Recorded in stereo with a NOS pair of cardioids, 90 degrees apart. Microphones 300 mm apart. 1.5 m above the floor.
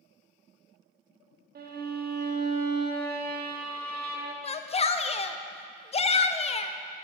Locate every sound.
1.6 s a violin: 35° right, 0.9 m
4.4 s a shout: 25° left, 0.5 m